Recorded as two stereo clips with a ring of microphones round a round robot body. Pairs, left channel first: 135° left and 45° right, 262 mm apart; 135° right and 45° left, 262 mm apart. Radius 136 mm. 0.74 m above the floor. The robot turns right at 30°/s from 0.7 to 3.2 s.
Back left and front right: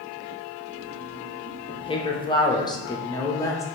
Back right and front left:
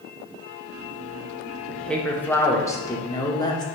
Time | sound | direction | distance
1.7 | a woman speaking | 145° left | 0.7 m